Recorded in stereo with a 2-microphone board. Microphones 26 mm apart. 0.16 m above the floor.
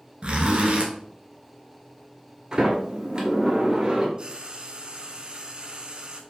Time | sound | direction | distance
0.2 | a zipper | 45° right (ahead or behind) | 0.9 m
2.5 | a sliding door | 30° right (ahead or behind) | 1.2 m
4.2 | frying | 35° right (ahead or behind) | 0.6 m